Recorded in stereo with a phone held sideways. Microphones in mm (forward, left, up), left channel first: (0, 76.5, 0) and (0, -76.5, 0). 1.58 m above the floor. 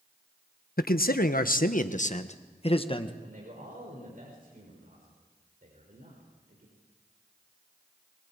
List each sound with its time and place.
0.8 s a man speaking: 80° left, 1.2 m; by 3.1 s 35° left (ahead or behind), 1.5 m
3.2 s a man speaking: 65° right (ahead or behind), 5.5 m